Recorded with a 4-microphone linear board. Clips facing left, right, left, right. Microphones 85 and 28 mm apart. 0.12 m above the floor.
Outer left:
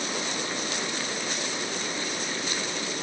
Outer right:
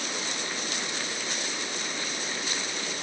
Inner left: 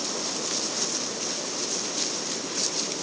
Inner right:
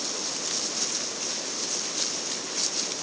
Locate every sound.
Only background noise.